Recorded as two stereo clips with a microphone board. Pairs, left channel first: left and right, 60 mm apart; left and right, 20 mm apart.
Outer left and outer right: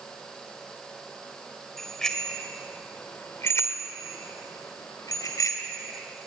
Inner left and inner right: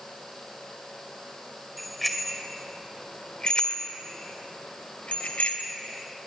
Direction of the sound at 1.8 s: 5° left (ahead or behind).